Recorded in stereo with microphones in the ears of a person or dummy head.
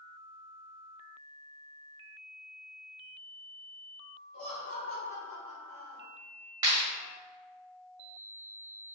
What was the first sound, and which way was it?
Laughter, 50° left (ahead or behind).